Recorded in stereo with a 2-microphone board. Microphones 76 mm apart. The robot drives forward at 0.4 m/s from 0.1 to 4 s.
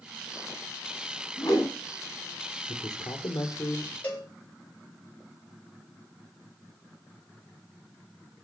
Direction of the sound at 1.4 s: 55° left (ahead or behind).